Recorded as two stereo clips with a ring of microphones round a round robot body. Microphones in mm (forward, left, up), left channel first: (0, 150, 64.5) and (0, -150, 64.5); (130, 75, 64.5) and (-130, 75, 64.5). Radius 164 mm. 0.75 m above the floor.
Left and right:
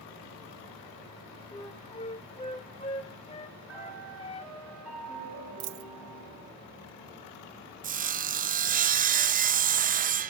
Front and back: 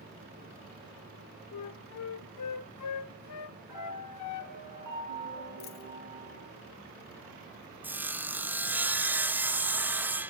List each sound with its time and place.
1.5 s a flute: 20° left, 0.8 m
3.7 s a piano: 175° right, 9.5 m
5.6 s a dropped coin: 60° right, 1.0 m
7.8 s sawing: 105° right, 0.6 m